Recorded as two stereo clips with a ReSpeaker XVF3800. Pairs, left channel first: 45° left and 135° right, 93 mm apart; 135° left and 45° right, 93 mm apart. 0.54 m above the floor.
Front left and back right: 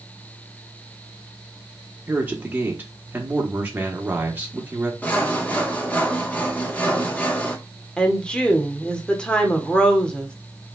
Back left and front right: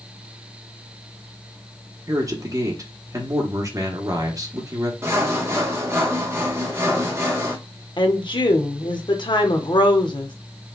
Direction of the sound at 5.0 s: 10° right.